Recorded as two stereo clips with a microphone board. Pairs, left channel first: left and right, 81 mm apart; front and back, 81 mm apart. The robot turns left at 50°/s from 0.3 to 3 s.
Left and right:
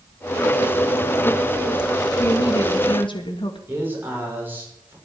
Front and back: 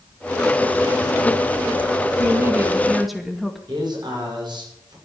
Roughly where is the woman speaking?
Behind left.